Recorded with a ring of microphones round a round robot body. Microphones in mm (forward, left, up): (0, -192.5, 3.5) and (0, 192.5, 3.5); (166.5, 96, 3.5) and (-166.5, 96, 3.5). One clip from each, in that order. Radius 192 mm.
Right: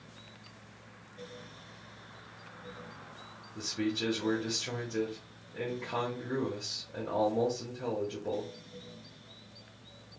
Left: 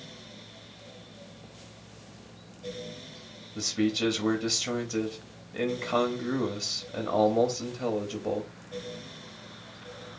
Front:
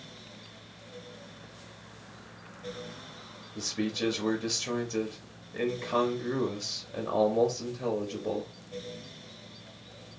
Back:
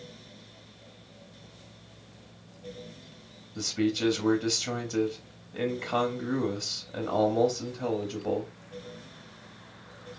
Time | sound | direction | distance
3.5 | a man speaking | 90° left | 1.0 m